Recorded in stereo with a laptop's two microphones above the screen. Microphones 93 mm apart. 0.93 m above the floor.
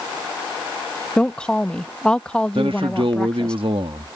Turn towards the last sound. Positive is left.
turn(degrees=-65)  # may be behind; listen again after turning